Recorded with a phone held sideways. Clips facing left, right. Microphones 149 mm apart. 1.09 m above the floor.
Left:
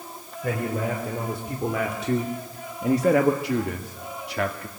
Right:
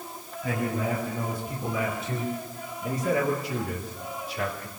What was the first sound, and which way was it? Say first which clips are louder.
A man speaking: left 2 dB; 65° left (ahead or behind).